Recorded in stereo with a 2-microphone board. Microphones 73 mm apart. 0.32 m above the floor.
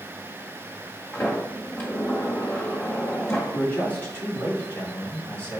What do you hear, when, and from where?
1.1 s a sliding door: 30° left (ahead or behind), 1.6 m
3.5 s a man speaking: 20° left (ahead or behind), 2.5 m